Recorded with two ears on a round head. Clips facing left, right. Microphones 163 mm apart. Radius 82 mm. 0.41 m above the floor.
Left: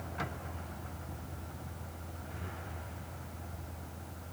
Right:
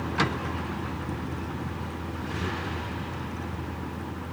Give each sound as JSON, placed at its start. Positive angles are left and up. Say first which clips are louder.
{"t": 0.0, "sound": "a vehicle", "louder": "right 13 dB", "side_deg": -85}